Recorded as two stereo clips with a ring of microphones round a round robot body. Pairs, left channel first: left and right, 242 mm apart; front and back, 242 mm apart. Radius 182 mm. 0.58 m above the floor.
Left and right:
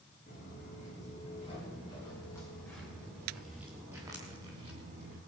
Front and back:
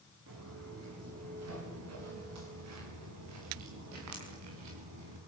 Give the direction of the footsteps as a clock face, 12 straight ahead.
7 o'clock.